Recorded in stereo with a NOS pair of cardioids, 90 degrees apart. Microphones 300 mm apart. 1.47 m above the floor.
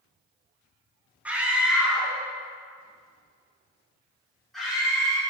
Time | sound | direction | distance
1.2 | a scream | 5° right | 1.6 m